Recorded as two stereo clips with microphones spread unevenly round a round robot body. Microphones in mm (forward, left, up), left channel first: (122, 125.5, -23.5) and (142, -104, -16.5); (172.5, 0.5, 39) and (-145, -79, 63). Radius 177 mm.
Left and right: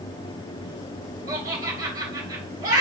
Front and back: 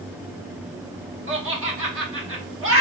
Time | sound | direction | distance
1.3 | laughter | 130° right | 1.1 m